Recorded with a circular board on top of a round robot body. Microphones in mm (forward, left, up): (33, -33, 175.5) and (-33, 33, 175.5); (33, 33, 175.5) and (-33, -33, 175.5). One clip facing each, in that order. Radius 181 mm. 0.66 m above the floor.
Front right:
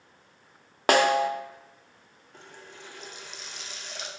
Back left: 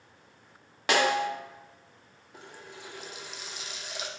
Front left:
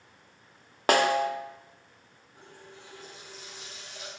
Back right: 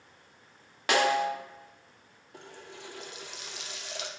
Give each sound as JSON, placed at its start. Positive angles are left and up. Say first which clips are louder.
{"t": 0.9, "sound": "a snare drum", "louder": "front right 4 dB, front left 2 dB", "azimuth_deg": 0, "distance_m": 0.8}
{"t": 2.3, "sound": "a running tap", "louder": "back left 1 dB, back right 4 dB", "azimuth_deg": -140, "distance_m": 0.9}